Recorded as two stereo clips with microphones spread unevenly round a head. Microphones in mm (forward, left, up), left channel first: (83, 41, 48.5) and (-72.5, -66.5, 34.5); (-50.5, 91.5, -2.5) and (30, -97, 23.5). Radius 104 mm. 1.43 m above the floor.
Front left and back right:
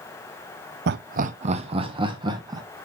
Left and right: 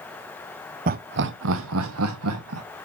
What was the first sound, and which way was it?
Laughter, 110° right.